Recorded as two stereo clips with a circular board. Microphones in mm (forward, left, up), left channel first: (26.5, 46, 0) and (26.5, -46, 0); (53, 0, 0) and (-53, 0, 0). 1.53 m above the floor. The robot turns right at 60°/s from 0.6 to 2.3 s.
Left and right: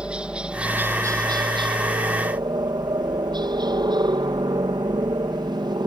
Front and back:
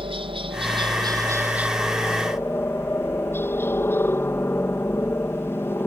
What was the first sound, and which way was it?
A helicopter, 165° right.